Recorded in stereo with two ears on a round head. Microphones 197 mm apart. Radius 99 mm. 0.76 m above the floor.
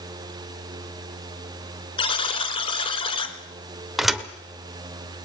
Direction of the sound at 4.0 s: Centre (ahead or behind).